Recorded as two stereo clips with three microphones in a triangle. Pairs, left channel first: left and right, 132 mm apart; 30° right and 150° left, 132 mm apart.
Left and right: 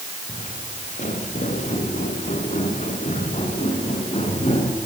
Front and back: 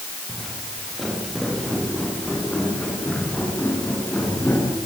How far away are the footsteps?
About 7 m.